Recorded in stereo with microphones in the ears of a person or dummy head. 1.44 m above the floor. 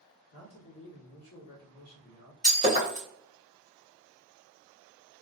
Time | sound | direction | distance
0.3 | a man speaking | 55° left (ahead or behind) | 1.4 m
2.4 | breaking glass | 30° left (ahead or behind) | 1.0 m